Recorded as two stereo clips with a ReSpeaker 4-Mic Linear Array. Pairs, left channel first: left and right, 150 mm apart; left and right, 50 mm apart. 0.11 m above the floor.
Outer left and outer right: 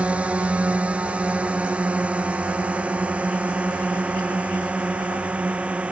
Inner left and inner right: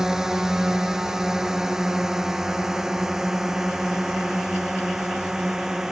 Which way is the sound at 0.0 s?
10° right (ahead or behind).